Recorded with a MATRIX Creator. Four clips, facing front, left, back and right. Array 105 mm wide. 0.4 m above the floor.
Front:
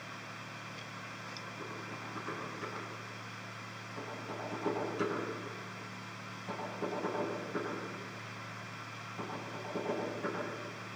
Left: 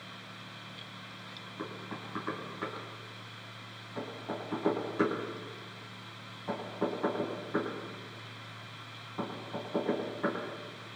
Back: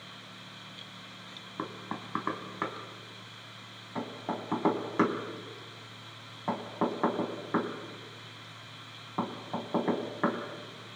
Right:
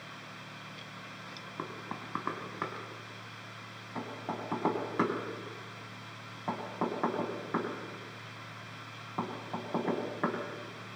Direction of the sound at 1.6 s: 155° right.